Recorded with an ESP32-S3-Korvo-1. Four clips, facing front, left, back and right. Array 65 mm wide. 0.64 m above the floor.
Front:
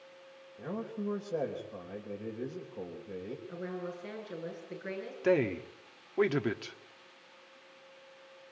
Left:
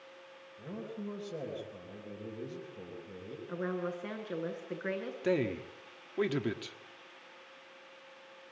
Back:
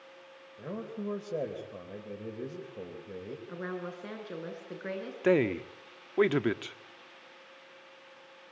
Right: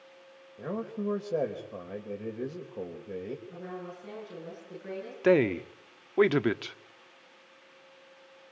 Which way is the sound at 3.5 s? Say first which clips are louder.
Left 5 dB, back 3 dB; 120° left.